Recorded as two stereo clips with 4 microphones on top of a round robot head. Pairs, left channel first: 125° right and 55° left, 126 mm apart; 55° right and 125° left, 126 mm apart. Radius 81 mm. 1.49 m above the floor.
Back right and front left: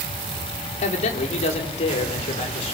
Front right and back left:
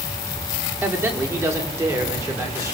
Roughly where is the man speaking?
Behind.